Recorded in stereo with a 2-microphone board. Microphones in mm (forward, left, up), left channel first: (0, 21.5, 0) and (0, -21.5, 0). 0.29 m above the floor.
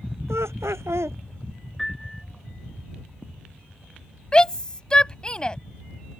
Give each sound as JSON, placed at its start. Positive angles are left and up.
{"t": 0.3, "sound": "laughter", "side_deg": -85}
{"t": 1.8, "sound": "a piano", "side_deg": 5}
{"t": 4.3, "sound": "a shout", "side_deg": 20}